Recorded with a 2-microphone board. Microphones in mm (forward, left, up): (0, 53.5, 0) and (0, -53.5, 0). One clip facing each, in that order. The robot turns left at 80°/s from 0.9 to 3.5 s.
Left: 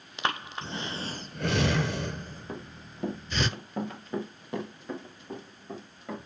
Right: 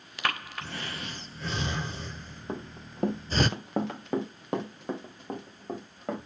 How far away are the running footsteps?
About 2 m.